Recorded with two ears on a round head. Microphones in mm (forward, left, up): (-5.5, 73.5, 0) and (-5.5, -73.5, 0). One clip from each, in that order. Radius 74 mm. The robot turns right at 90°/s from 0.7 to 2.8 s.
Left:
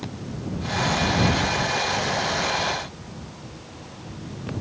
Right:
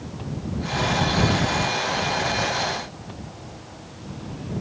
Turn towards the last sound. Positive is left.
No sound to turn to.